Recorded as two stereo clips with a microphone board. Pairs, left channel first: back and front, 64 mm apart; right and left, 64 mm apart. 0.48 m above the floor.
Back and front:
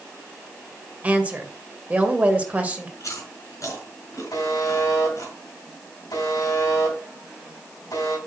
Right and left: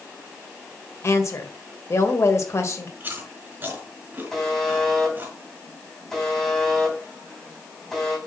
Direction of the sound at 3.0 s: 150° left.